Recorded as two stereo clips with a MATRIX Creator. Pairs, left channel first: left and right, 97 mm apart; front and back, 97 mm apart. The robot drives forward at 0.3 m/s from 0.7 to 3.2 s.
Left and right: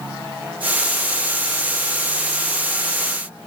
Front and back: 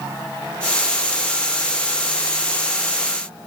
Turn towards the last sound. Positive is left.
No sound to turn to.